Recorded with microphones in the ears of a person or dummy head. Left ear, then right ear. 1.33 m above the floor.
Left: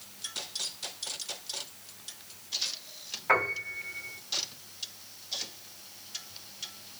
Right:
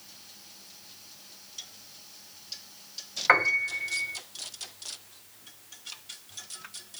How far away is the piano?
About 2 m.